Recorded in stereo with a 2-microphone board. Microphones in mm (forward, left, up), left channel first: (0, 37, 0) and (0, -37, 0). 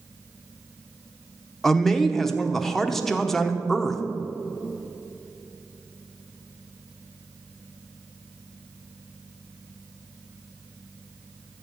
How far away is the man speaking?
About 0.9 m.